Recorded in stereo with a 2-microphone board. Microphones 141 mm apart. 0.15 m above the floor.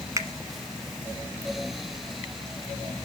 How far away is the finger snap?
About 1.1 m.